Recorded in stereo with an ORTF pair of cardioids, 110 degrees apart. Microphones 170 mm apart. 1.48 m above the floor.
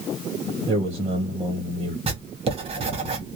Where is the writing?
35° right, 0.9 m.